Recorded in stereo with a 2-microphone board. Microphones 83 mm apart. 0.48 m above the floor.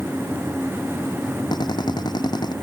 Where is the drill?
60° left (ahead or behind).